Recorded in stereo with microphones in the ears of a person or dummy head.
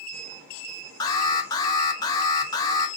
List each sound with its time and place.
1.0 s an alarm: 15° left (ahead or behind), 0.8 m